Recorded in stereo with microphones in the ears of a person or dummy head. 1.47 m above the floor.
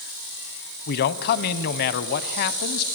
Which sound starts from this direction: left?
A man speaking, at 0.9 s.